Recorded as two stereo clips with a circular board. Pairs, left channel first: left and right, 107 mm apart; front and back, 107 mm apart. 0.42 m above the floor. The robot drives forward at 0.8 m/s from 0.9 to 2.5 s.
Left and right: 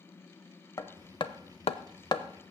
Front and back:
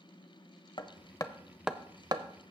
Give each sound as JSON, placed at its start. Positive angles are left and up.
{"t": 0.8, "sound": "hammering", "azimuth_deg": 35, "distance_m": 0.7}